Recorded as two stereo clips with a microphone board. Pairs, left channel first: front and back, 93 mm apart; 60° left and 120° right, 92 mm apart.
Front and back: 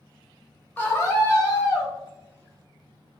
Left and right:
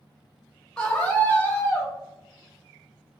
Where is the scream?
10° right, 0.9 m; by 1.9 s 20° left, 1.2 m.